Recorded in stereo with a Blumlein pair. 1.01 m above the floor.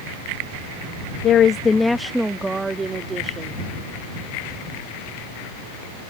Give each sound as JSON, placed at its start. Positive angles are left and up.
{"t": 1.2, "sound": "a woman speaking", "azimuth_deg": 35}